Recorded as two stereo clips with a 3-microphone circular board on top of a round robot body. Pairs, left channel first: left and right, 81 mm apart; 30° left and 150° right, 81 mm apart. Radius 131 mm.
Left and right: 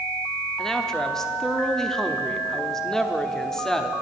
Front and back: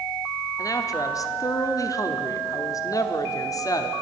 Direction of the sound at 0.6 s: 10° left.